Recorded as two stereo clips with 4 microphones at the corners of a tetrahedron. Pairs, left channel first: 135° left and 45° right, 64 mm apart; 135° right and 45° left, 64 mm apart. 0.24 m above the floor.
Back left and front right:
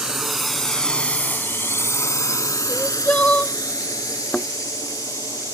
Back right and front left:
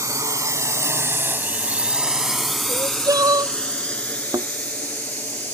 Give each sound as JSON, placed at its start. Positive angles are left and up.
{"t": 0.0, "sound": "a drone", "azimuth_deg": 35}
{"t": 2.7, "sound": "crying", "azimuth_deg": 65}
{"t": 4.3, "sound": "a thud", "azimuth_deg": 55}